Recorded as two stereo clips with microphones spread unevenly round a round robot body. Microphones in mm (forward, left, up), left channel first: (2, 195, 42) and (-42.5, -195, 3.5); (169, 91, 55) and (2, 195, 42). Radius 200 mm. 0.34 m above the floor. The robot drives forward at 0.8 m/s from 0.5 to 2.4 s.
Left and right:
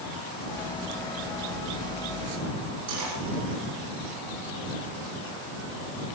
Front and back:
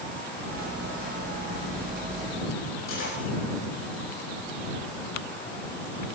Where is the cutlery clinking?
50° right, 8 m.